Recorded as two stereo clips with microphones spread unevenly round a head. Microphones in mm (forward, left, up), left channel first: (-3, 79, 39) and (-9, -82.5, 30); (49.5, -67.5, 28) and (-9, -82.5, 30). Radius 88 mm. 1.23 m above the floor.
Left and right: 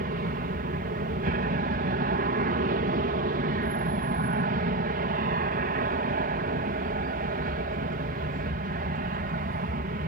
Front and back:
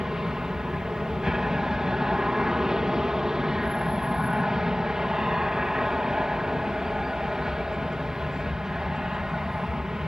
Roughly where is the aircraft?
Right.